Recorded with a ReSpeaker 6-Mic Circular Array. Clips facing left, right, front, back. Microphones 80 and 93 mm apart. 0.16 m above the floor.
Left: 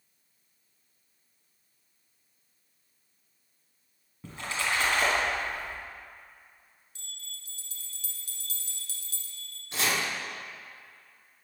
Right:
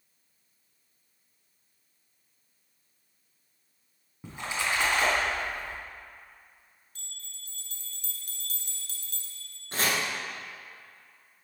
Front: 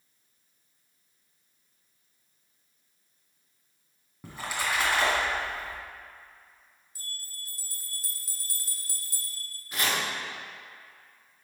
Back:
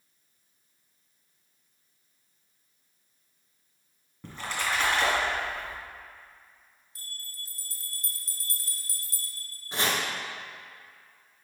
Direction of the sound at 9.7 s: 125° right.